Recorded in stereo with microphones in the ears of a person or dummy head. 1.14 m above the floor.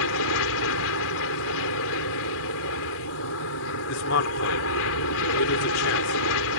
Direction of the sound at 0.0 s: 70° left (ahead or behind).